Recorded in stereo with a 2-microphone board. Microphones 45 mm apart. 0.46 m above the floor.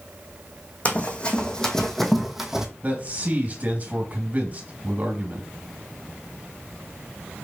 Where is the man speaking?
40° right (ahead or behind), 2.5 m.